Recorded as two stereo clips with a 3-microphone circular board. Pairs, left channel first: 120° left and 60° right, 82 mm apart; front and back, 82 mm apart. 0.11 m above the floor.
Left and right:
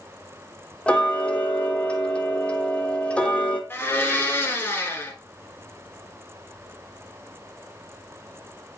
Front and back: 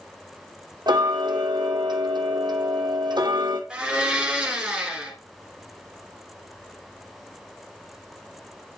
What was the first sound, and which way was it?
Ticking, 165° right.